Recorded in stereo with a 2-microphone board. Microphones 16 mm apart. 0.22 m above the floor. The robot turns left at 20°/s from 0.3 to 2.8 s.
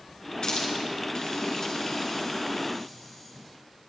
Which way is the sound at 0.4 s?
60° left (ahead or behind).